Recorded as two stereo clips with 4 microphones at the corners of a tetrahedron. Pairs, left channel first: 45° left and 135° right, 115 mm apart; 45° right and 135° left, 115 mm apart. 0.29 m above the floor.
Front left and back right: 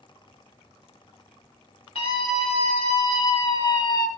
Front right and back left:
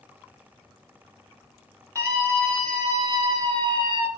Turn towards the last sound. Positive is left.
turn(degrees=95)